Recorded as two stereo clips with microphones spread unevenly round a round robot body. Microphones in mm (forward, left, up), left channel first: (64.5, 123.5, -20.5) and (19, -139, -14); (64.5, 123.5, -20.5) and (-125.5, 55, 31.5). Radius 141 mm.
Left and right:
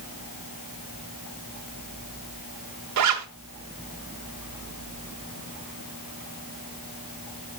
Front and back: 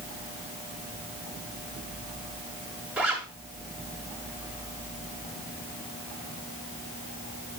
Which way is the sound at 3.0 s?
80° right.